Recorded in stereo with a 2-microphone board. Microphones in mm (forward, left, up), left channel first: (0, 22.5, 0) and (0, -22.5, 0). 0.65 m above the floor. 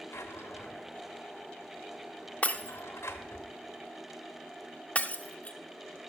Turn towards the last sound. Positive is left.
turn(degrees=30)  # may be behind; listen again after turning